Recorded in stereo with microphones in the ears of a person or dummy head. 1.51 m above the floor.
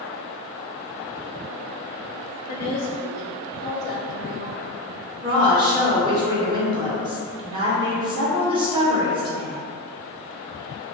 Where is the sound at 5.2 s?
25° right (ahead or behind), 0.9 m.